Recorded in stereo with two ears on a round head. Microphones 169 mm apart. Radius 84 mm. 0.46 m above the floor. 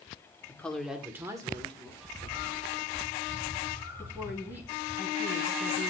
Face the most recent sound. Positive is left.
turn(degrees=-10)  # may be behind; listen again after turning